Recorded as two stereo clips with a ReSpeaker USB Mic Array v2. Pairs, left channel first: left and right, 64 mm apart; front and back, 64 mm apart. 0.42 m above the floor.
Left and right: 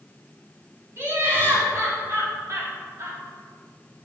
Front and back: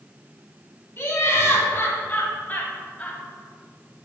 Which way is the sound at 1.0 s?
50° right.